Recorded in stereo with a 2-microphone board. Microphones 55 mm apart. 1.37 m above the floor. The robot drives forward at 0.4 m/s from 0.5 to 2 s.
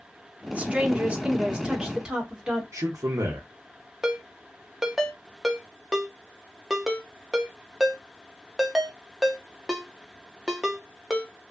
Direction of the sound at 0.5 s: 30° right (ahead or behind).